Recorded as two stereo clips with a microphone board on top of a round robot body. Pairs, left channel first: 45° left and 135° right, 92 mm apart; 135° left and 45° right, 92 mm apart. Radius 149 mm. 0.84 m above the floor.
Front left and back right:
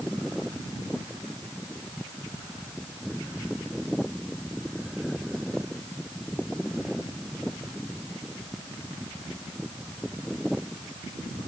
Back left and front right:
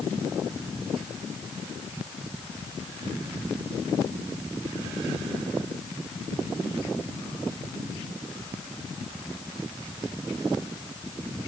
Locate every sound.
Only background noise.